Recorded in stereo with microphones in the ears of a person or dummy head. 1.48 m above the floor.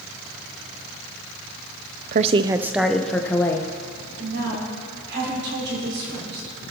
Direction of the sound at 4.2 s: 70° right (ahead or behind).